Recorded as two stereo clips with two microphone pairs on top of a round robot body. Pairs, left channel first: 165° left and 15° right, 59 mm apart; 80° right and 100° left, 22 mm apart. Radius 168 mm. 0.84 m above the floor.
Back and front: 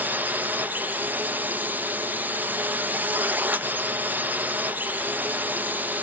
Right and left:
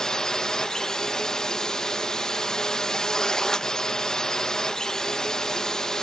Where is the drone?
25° right.